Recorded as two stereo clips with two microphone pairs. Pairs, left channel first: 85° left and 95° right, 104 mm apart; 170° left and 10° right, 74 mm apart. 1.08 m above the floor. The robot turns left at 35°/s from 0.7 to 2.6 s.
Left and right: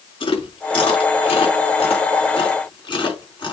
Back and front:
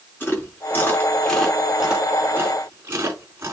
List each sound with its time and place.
0.2 s chewing: 110° left, 4.5 m; by 3.5 s 45° left, 4.5 m